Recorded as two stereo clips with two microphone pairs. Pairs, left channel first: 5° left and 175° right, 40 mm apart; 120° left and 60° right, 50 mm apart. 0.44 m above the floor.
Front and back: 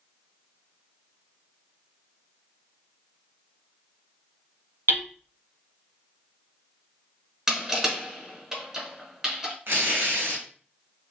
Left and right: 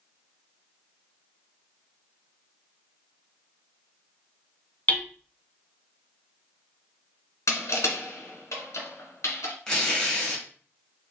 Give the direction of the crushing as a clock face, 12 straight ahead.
8 o'clock.